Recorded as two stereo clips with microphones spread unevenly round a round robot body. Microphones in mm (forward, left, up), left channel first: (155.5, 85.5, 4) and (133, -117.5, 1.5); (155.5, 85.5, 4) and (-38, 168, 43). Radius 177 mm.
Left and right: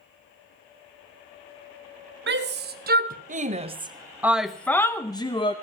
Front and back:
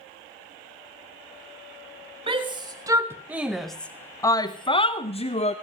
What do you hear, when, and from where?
2.3 s a shout: 125° right, 1.2 m; by 5.5 s 20° left, 1.1 m